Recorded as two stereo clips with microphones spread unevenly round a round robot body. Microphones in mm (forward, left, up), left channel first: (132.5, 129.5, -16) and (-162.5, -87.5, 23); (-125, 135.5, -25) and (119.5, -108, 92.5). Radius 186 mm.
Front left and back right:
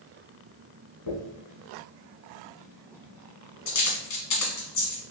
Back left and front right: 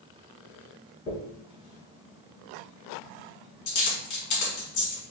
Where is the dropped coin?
85° left, 1.7 m.